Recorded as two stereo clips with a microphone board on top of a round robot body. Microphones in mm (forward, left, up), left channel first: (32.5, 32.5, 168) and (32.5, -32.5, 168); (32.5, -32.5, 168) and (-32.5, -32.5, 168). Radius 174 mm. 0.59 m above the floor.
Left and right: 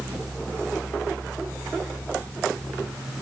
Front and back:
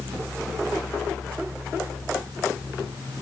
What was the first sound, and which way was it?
Only background noise.